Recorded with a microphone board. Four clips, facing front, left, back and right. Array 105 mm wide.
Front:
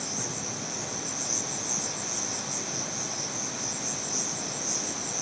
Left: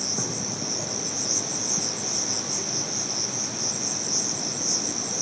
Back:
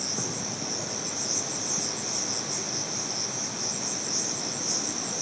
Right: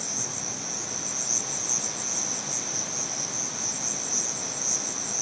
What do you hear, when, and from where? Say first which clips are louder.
0.0 s an insect: left 5 dB, back 2 dB; 110° left, 0.9 m